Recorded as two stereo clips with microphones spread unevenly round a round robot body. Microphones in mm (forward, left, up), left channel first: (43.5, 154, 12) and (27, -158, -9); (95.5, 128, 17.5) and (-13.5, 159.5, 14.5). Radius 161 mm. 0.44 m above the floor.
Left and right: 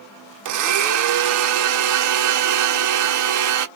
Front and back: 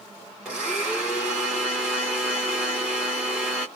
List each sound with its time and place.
0.5 s a blender: 115° right, 1.1 m